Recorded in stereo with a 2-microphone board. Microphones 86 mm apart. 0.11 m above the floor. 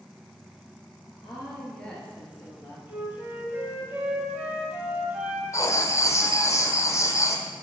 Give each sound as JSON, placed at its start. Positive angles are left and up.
{"t": 1.2, "sound": "a woman speaking", "side_deg": 0, "distance_m": 2.0}
{"t": 2.9, "sound": "a flute", "side_deg": -20, "distance_m": 1.9}
{"t": 5.5, "sound": "writing", "side_deg": 35, "distance_m": 0.7}